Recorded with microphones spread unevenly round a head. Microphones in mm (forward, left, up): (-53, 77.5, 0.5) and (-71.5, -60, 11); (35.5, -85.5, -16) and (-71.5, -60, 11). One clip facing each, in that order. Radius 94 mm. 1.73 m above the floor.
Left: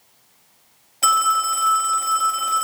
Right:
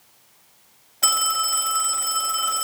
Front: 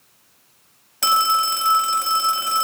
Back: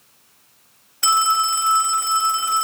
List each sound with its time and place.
1.0 s a phone ringing: straight ahead, 1.3 m